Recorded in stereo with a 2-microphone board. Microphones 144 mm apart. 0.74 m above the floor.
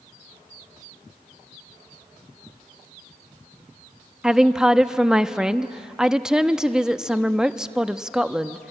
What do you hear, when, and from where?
4.2 s a woman speaking: 5° right (ahead or behind), 0.6 m